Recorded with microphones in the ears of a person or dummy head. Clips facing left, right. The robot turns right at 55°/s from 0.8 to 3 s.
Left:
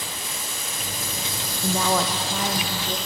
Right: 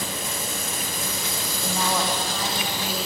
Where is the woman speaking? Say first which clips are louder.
Left 3 dB; 100° left, 0.8 m; by 3.0 s 175° left, 0.8 m.